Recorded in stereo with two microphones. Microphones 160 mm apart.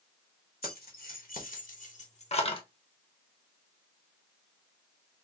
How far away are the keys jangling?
About 1.5 m.